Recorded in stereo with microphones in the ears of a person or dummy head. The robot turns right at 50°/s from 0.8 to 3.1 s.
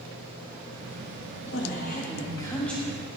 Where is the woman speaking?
115° left, 1.6 m; by 2.8 s straight behind, 1.6 m.